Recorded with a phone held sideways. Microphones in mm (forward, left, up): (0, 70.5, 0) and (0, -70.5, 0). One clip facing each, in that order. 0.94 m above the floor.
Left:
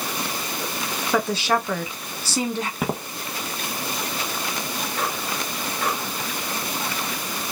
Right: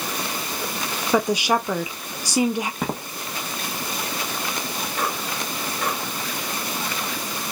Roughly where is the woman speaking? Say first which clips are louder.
Right 2 dB; centre.